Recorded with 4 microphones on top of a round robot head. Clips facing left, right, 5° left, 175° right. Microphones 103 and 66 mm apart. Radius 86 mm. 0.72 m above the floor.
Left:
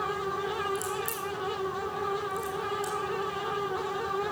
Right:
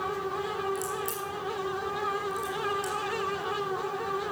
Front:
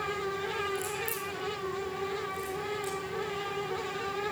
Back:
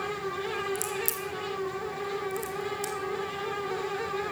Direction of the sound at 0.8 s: 175° left.